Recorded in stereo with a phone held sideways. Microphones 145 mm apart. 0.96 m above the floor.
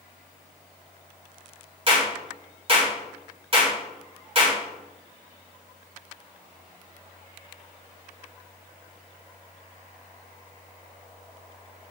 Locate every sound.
1.9 s a clap: 40° right (ahead or behind), 3.5 m